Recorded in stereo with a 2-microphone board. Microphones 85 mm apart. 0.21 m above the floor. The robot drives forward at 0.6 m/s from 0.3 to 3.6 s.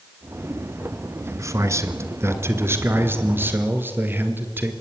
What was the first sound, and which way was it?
A man speaking, 35° right (ahead or behind).